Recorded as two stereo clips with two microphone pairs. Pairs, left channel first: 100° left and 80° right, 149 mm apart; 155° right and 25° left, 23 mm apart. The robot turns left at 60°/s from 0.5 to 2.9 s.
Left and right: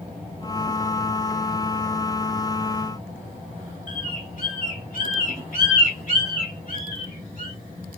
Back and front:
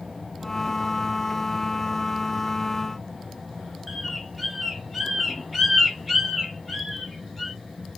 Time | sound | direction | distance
3.9 | a bird | 115° left | 2 m